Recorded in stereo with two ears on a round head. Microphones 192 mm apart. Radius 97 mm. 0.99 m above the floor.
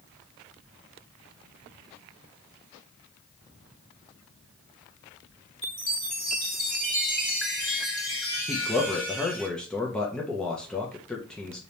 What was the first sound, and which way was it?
A chime, centre (ahead or behind).